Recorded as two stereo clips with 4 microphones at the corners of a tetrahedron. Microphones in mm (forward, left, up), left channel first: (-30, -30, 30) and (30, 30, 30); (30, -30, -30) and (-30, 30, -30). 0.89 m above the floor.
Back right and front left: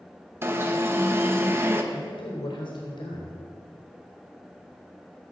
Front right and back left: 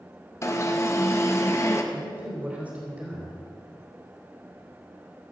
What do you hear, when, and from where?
0.4 s an alarm: 5° right, 1.0 m
1.9 s a man speaking: 150° right, 3.5 m